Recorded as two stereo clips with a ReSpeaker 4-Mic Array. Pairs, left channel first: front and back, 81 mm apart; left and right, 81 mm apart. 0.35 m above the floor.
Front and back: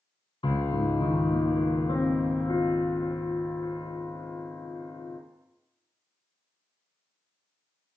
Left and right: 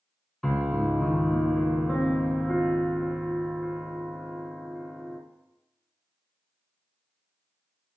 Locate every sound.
0.4 s a piano: 5° left, 0.7 m